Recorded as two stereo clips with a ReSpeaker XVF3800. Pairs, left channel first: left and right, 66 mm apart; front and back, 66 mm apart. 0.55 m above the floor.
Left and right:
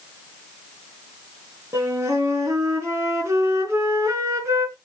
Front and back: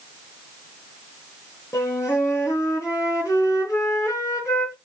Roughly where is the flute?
Ahead right.